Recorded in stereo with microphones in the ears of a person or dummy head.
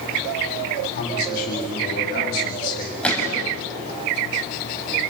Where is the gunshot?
5° left (ahead or behind), 5 m.